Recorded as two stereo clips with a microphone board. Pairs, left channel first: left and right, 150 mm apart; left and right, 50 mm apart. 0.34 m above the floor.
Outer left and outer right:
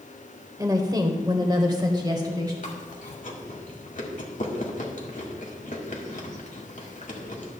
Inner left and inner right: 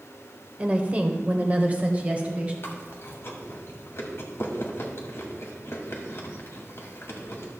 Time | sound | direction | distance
0.6 | a woman speaking | 25° right (ahead or behind) | 0.9 m
2.6 | chewing | 60° left (ahead or behind) | 1.5 m